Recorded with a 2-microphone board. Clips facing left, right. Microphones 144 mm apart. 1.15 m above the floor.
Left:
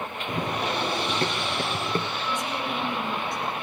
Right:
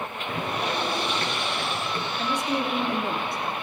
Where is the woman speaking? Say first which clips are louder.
Right 3 dB; 65° right (ahead or behind), 3 m.